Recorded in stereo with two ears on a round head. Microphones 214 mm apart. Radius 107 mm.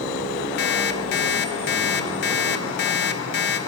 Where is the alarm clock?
50° left (ahead or behind), 1.4 m.